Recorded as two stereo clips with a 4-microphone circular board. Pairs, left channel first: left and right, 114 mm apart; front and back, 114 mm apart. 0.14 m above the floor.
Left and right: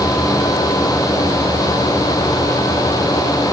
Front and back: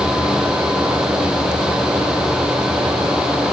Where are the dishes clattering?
No dishes clattering in this recording.